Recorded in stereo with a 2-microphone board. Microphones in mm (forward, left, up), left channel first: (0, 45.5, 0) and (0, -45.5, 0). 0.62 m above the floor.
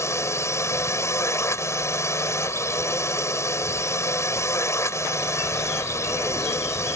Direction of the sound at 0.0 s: 30° left (ahead or behind).